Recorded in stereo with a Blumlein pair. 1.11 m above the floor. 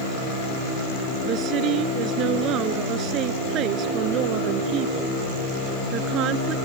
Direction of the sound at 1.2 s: 35° right.